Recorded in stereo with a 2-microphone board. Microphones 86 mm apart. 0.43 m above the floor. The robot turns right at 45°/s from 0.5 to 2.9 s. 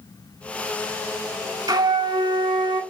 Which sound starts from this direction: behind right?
A flute, at 1.7 s.